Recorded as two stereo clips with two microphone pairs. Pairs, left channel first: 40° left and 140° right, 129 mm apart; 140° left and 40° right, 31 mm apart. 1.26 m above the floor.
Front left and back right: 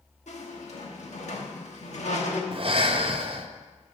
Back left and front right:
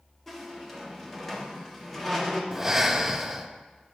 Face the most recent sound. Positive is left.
turn(degrees=-120)